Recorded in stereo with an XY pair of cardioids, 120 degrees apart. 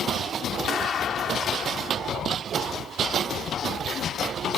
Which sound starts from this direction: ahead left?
A clap, at 0.7 s.